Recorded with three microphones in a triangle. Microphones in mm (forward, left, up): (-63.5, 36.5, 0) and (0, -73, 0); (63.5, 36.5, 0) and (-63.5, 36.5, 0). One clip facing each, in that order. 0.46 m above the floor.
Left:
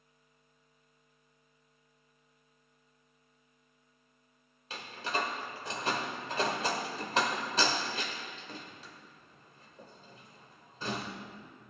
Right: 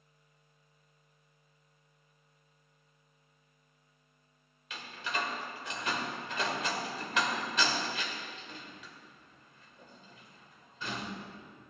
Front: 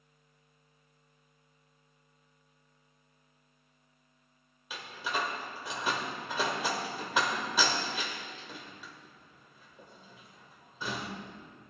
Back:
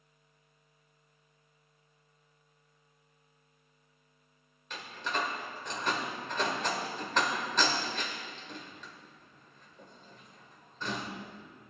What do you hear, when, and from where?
4.7 s a door slam: 80° left, 1.4 m